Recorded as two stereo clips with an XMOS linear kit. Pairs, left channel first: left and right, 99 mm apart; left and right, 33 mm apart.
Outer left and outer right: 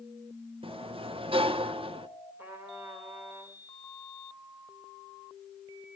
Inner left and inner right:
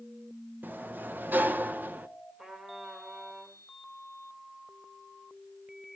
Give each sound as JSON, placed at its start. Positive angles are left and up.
{"t": 0.6, "sound": "a sliding door", "side_deg": -65, "distance_m": 0.8}
{"t": 2.4, "sound": "a trumpet", "side_deg": -25, "distance_m": 3.0}